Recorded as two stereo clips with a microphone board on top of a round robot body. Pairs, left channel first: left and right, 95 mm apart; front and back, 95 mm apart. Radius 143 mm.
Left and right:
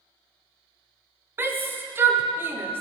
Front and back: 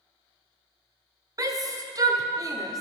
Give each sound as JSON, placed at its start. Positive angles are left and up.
{"t": 1.4, "sound": "a shout", "azimuth_deg": -150, "distance_m": 1.5}